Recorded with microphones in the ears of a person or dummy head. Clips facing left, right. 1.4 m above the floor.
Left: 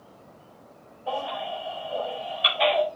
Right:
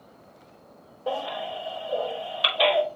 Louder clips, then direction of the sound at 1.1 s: Right 1 dB; 85° right.